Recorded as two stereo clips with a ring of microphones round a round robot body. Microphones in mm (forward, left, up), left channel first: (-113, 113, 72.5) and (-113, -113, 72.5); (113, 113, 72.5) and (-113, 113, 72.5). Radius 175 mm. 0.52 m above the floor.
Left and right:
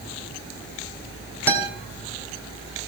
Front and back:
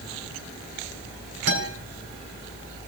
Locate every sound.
1.5 s a guitar: 170° right, 3.5 m